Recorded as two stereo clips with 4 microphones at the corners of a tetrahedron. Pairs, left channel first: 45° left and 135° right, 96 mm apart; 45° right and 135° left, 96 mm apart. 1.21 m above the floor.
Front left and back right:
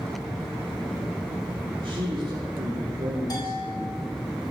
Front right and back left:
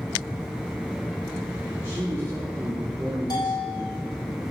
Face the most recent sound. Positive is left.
turn(degrees=0)